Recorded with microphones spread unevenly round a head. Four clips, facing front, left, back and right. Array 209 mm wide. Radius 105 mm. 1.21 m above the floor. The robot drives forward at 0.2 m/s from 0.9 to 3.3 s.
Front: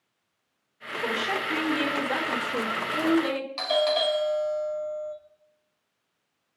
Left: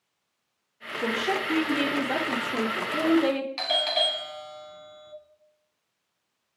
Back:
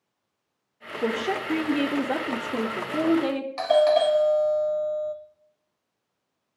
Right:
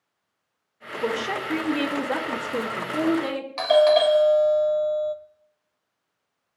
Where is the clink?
No clink in this recording.